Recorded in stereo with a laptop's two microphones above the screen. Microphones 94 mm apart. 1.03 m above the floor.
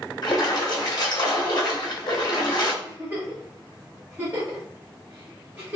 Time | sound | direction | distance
0.2 | a splash | 50° left (ahead or behind) | 0.8 m
2.8 | a giggle | 15° right (ahead or behind) | 1.2 m